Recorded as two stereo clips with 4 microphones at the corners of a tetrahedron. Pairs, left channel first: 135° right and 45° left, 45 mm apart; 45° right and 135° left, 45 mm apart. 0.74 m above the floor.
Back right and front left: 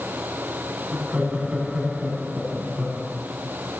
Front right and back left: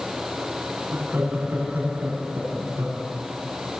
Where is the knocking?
I don't hear knocking.